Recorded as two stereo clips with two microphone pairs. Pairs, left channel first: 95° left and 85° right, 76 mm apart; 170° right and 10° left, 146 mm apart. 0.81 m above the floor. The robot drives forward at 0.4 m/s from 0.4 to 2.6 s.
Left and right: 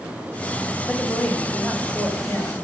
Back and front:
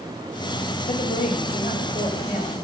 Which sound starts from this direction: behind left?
A woman speaking, at 0.9 s.